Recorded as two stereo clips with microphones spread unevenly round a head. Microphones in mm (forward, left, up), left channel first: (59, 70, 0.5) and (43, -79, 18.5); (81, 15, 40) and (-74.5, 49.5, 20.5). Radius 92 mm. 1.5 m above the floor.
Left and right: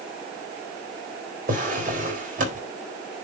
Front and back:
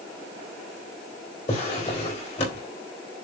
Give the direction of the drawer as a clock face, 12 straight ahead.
2 o'clock.